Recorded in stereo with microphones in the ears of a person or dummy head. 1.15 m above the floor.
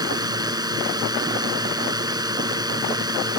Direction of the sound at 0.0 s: 15° right (ahead or behind).